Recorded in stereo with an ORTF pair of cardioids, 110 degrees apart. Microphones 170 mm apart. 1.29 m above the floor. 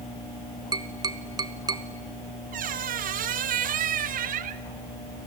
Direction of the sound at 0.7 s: 25° right.